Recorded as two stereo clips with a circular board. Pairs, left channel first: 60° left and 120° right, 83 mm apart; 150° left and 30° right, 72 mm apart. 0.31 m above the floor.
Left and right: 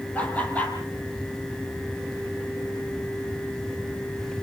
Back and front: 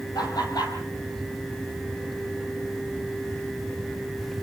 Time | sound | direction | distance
0.1 | laughter | 130° left | 8.5 m